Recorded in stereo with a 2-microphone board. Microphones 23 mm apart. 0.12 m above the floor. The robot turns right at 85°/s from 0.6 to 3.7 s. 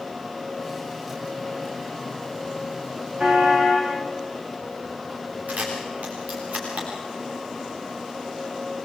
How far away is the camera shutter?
About 6.5 m.